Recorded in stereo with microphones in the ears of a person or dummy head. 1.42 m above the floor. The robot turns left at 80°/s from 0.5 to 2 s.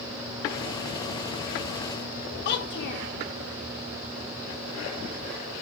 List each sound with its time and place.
2.5 s a child speaking: 60° left (ahead or behind), 1.1 m